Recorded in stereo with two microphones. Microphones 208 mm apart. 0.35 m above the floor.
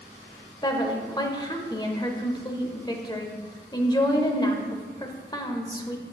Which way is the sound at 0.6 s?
20° left (ahead or behind).